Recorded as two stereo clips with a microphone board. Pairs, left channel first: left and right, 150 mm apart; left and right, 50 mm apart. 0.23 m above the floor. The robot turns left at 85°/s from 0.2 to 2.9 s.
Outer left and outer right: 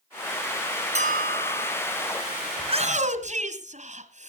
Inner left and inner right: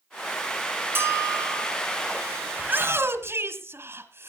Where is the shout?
30° right (ahead or behind), 1.9 m; by 4.3 s 50° right (ahead or behind), 1.9 m.